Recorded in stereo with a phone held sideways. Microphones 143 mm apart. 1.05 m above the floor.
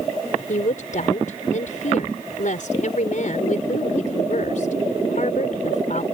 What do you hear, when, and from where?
0.5 s a woman speaking: 70° left (ahead or behind)